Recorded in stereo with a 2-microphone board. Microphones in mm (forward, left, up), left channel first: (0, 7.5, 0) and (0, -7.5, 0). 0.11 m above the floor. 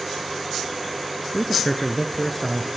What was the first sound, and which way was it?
A man speaking, 20° left (ahead or behind).